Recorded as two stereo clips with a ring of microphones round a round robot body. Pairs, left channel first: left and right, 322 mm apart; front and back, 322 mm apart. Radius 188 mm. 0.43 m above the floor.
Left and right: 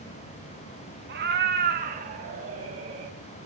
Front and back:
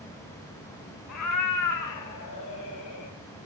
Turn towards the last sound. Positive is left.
turn(degrees=-20)